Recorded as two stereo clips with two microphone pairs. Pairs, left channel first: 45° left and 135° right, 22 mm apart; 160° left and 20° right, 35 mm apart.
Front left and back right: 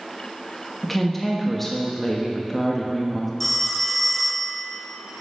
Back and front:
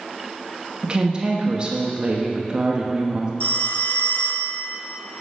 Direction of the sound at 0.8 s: 20° right.